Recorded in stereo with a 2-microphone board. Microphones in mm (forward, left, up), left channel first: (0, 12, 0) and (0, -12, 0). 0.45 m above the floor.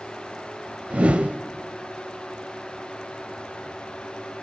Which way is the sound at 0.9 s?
70° right (ahead or behind).